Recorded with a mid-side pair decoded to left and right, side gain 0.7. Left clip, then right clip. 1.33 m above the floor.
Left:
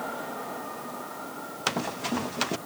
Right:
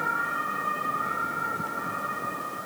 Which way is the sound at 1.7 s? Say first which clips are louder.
Left 1 dB; 70° left.